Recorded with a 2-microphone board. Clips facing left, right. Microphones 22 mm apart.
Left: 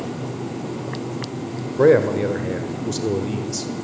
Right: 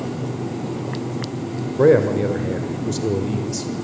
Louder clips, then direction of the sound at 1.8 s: Even; 10° left (ahead or behind).